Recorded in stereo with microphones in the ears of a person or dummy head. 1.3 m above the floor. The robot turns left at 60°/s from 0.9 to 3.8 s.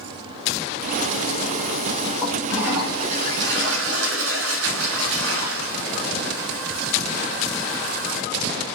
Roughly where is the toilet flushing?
Ahead.